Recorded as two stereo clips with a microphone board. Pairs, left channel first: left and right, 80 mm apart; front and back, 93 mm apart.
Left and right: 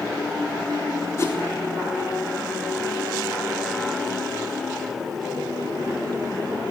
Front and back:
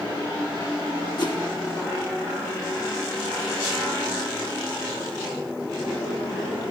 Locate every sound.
1.2 s a whoosh: 35° left, 4 m